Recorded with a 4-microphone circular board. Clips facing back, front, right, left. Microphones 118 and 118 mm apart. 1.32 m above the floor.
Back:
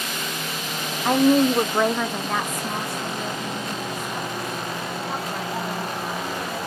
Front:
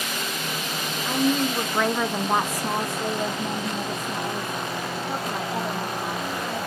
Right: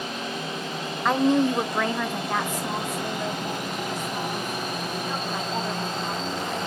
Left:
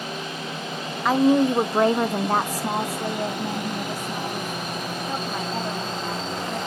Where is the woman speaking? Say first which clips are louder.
Back 6 dB, left 3 dB; 175° left, 0.7 m; by 6.6 s 25° left, 3.5 m.